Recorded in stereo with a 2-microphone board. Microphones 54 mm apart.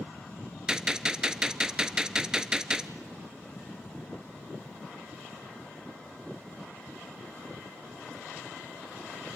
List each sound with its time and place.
0.7 s a gunshot: 10° right (ahead or behind), 0.6 m